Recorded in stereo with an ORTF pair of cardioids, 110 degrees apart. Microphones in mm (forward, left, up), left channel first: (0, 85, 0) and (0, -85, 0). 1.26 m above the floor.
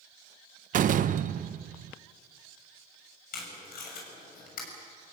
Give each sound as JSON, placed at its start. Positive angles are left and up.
{"t": 0.7, "sound": "a door slam", "azimuth_deg": -50, "distance_m": 0.8}
{"t": 3.3, "sound": "tape being pulled", "azimuth_deg": 60, "distance_m": 7.0}